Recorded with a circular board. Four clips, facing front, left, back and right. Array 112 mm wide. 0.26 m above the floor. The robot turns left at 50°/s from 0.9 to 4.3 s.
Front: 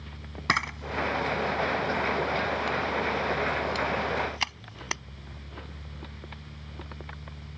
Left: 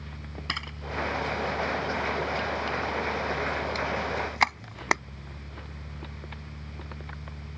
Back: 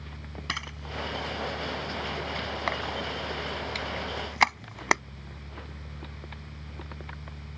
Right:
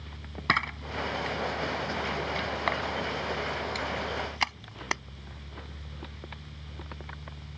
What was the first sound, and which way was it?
A camera shutter, 40° right.